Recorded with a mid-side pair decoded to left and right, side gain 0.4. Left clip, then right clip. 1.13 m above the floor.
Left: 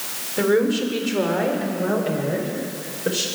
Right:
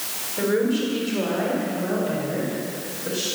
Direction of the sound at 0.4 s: 45° left.